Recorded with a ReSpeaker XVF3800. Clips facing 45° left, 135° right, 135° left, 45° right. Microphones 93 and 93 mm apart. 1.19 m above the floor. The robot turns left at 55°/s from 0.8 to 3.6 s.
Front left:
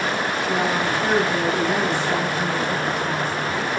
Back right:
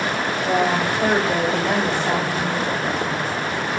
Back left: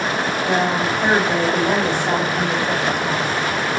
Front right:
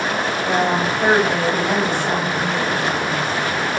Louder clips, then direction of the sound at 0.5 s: Back right 4 dB, front right 1 dB; 115° right.